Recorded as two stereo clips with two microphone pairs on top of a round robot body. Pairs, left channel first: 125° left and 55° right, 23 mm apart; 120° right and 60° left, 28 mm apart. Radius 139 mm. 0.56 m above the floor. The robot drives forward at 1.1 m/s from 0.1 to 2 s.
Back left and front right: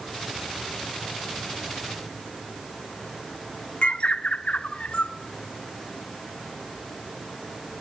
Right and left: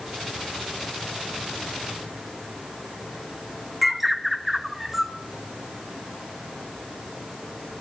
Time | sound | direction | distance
3.8 | a bird | 150° left | 1.2 m